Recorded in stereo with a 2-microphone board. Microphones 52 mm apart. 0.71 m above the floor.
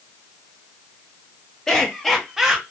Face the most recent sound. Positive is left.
turn(degrees=-15)  # may be behind; listen again after turning